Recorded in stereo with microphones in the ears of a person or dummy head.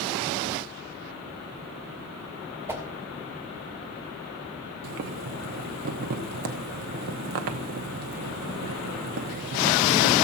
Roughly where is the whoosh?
Centre.